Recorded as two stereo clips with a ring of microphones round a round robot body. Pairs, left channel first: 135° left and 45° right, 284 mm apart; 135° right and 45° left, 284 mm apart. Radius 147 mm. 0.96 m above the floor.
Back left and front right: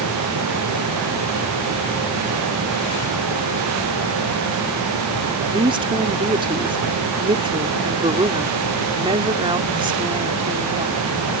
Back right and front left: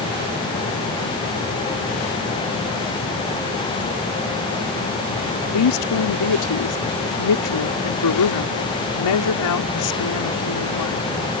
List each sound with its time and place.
5.5 s a woman speaking: 120° right